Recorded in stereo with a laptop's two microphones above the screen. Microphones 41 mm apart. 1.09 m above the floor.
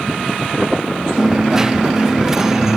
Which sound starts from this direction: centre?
A dropped coin, at 1.2 s.